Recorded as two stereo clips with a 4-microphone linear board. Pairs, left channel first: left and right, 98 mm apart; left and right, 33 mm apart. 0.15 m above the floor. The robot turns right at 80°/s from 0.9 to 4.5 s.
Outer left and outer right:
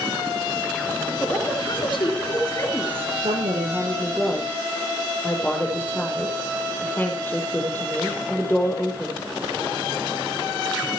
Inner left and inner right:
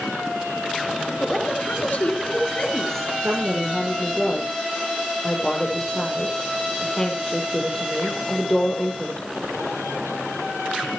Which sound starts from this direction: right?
A woman speaking, at 3.2 s.